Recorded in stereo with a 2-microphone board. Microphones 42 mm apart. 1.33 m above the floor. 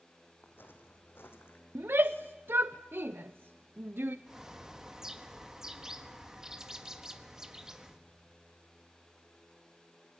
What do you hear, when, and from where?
0.4 s footsteps: 55° left (ahead or behind), 4 m; by 1.6 s 70° left (ahead or behind), 4.5 m
1.8 s a shout: 65° right (ahead or behind), 0.5 m
4.3 s a bird: 15° right (ahead or behind), 1.4 m